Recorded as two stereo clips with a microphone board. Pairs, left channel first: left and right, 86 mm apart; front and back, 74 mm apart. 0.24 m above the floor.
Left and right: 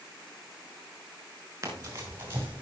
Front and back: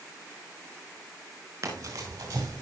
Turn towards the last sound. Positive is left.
turn(degrees=-160)